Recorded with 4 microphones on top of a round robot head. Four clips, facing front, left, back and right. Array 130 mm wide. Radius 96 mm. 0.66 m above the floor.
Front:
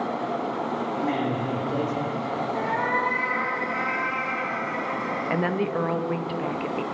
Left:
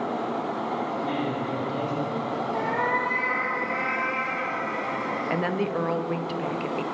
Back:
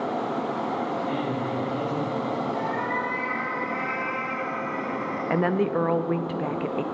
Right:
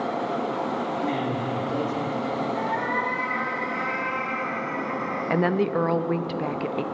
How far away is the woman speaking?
About 0.5 m.